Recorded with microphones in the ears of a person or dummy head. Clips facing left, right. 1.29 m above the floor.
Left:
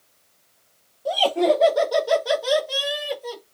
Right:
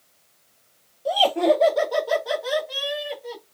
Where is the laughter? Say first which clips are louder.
Even; 10° right (ahead or behind), 1.1 m; by 3.4 s 80° left, 1.3 m.